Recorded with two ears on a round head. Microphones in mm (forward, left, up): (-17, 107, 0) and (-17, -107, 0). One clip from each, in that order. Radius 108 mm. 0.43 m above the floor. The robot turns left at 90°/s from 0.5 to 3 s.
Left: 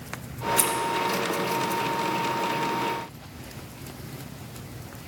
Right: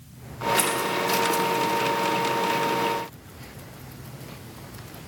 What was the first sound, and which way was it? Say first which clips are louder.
Scissors: right 1 dB; 10° left (ahead or behind).